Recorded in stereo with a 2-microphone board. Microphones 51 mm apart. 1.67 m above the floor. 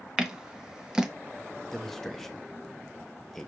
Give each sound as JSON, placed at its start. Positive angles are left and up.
{"t": 0.2, "sound": "scissors", "side_deg": -10, "distance_m": 0.6}
{"t": 1.7, "sound": "a man speaking", "side_deg": 5, "distance_m": 0.6}